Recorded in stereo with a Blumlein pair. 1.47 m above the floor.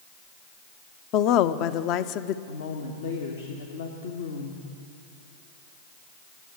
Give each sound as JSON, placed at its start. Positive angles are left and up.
{"t": 1.1, "sound": "a woman speaking", "azimuth_deg": 40, "distance_m": 0.6}
{"t": 2.5, "sound": "a woman speaking", "azimuth_deg": 65, "distance_m": 1.4}